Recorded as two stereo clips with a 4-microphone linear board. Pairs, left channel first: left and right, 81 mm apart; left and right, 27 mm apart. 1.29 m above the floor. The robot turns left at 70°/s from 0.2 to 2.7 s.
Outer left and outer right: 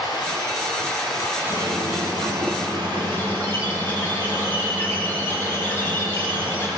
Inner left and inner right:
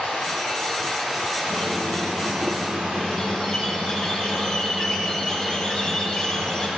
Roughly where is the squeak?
Left.